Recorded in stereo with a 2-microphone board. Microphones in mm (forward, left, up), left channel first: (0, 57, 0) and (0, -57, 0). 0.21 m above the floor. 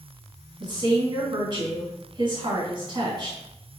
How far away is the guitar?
No guitar in this recording.